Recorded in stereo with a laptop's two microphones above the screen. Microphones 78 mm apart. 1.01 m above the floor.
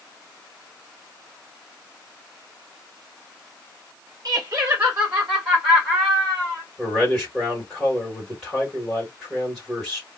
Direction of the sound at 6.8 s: Centre (ahead or behind).